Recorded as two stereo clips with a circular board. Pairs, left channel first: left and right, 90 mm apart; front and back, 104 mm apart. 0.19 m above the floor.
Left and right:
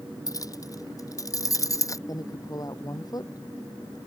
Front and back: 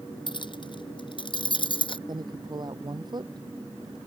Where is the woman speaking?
135° left.